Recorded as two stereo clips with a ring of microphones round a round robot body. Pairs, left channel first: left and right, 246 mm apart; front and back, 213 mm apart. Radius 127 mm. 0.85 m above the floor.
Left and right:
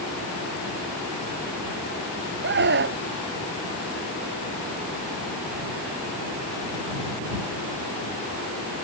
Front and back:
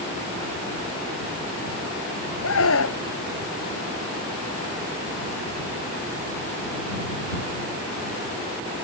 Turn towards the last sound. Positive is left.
turn(degrees=-40)